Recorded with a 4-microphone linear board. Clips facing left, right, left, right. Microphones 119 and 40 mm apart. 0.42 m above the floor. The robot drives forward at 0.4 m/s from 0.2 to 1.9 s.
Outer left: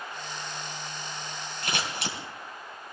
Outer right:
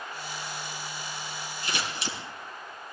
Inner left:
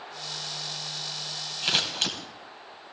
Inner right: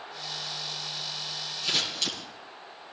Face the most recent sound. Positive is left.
turn(degrees=70)  # may be behind; listen again after turning